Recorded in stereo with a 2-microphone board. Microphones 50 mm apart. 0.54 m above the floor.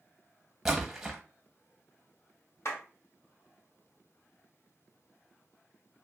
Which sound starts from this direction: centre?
A splash, at 0.7 s.